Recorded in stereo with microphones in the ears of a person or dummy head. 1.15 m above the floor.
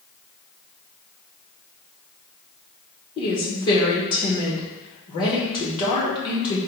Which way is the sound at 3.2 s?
25° left (ahead or behind).